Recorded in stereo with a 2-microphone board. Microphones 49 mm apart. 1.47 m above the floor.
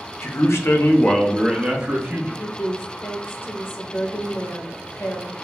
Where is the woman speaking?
50° left (ahead or behind), 0.9 m.